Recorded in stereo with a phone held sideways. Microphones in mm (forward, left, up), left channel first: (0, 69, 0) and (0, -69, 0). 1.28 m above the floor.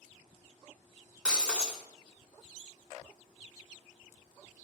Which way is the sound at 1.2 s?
5° right (ahead or behind).